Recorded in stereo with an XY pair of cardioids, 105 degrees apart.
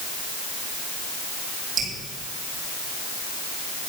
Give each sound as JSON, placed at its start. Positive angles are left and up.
{"t": 1.8, "sound": "dripping", "azimuth_deg": -70, "distance_m": 7.5}